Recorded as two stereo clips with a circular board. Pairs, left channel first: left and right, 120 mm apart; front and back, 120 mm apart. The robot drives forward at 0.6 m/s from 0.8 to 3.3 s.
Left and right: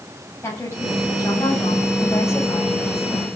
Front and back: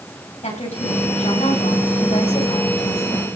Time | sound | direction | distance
0.4 | a woman speaking | 20° left | 8 m